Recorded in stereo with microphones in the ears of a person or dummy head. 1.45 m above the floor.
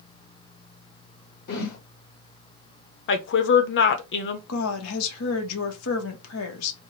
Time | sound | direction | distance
1.5 | a whoosh | 55° left (ahead or behind) | 1.6 m
3.1 | a woman speaking | 55° left (ahead or behind) | 0.8 m
4.5 | a woman speaking | 80° left | 1.1 m